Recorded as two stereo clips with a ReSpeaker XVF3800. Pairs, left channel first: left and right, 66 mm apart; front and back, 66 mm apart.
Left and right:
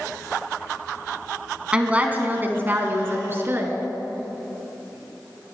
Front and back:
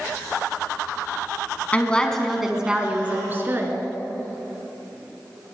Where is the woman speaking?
35° right, 1.2 m; by 3.8 s 135° right, 1.9 m.